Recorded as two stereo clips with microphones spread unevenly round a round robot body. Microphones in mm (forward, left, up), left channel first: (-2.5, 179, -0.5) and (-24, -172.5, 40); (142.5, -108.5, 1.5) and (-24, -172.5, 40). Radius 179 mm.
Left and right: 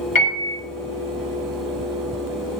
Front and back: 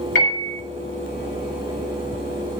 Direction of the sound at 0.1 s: 45° left.